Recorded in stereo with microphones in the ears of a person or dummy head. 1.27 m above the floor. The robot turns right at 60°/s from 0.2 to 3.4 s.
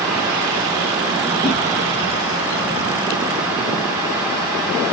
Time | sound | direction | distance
1.4 | a whoosh | 50° left (ahead or behind) | 3 m